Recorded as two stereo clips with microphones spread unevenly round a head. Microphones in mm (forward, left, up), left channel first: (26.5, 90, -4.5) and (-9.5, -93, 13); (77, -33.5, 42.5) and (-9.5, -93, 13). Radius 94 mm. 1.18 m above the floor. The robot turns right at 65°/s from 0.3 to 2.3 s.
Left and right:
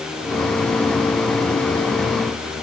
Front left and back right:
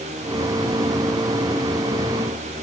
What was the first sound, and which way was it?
Only background noise.